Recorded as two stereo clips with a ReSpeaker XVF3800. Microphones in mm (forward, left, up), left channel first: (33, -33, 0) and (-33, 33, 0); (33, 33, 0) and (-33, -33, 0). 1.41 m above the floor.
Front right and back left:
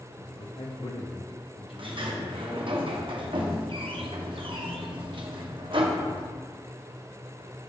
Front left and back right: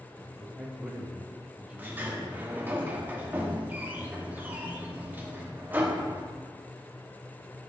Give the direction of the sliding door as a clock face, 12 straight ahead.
7 o'clock.